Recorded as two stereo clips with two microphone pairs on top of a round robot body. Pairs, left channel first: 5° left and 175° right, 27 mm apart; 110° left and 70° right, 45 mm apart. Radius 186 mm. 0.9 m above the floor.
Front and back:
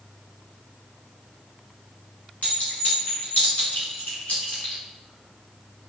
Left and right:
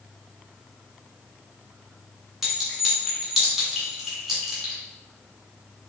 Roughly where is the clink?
Ahead.